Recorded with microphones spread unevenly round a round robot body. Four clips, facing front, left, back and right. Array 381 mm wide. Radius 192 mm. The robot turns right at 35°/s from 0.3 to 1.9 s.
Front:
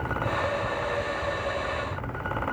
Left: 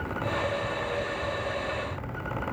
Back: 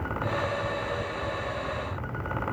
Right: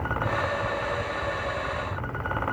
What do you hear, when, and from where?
Only background noise.